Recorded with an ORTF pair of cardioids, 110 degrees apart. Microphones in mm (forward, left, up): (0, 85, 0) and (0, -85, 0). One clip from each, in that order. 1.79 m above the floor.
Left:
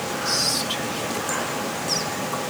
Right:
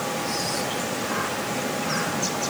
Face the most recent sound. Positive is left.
turn(degrees=45)